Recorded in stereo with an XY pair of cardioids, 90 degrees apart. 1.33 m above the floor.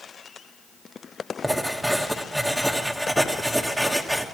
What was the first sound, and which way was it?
Writing, straight ahead.